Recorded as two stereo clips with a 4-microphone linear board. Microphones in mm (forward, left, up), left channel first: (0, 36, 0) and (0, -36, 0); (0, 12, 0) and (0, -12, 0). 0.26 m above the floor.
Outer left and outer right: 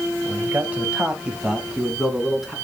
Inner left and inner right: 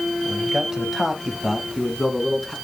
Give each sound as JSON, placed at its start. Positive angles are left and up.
{"t": 0.2, "sound": "a man speaking", "side_deg": -25, "distance_m": 1.2}